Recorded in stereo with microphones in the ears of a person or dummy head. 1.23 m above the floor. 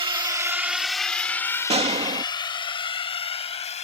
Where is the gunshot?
30° right (ahead or behind).